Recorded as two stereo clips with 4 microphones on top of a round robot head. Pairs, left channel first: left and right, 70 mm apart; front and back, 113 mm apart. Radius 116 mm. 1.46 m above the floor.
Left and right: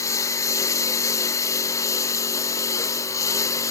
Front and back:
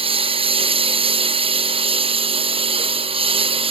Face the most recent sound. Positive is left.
turn(degrees=140)